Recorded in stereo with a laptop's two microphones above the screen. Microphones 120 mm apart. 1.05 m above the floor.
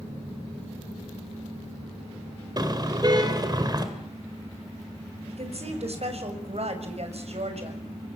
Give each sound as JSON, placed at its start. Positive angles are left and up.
{"t": 2.6, "sound": "a car horn", "side_deg": -35, "distance_m": 2.5}
{"t": 5.3, "sound": "a woman speaking", "side_deg": -60, "distance_m": 6.5}